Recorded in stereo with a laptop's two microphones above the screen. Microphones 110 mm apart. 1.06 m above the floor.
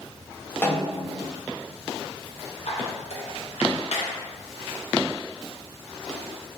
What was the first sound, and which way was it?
A snare drum, 15° left (ahead or behind).